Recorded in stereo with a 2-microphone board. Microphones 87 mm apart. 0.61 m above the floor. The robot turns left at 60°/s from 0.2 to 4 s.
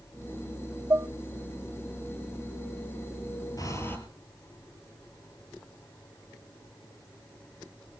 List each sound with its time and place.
0.9 s dishes clattering: 35° right (ahead or behind), 0.6 m; by 1.1 s 40° right (ahead or behind), 0.6 m
3.6 s breathing: 45° left (ahead or behind), 3.5 m; by 4.0 s 20° left (ahead or behind), 3.5 m